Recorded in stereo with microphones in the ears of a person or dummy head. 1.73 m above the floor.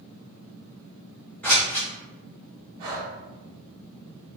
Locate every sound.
1.4 s scissors: 10° left (ahead or behind), 0.8 m
2.8 s breathing: 40° right (ahead or behind), 1.1 m